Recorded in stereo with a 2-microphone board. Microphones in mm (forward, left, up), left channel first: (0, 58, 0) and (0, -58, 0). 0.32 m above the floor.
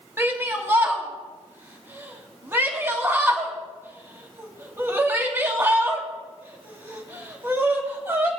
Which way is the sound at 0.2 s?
25° right (ahead or behind).